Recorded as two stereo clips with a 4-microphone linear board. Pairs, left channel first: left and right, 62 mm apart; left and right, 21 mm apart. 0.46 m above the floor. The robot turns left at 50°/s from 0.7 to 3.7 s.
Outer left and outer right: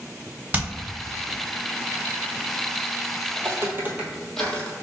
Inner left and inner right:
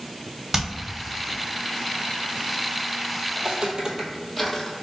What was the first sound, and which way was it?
Hammering, 20° right (ahead or behind).